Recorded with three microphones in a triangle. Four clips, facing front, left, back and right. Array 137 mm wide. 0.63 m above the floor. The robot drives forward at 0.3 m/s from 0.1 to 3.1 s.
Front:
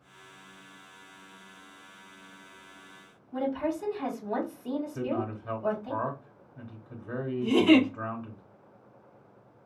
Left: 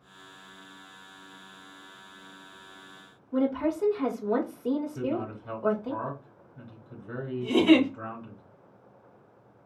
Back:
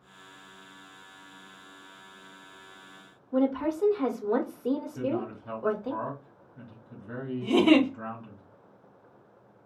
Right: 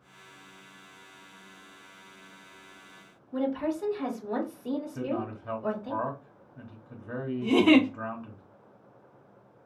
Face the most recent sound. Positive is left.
turn(degrees=-125)